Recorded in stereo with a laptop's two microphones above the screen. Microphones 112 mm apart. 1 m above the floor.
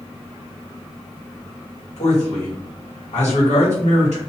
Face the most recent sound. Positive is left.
turn(degrees=75)  # may be behind; listen again after turning